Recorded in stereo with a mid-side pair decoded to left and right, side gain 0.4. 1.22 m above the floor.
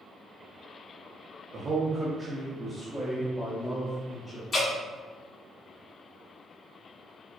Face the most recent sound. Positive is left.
turn(degrees=45)